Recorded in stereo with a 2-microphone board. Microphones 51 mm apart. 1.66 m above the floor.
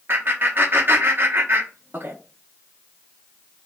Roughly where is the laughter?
Right.